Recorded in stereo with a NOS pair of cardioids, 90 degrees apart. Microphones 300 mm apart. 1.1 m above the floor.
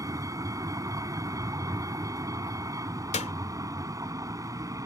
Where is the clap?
25° left.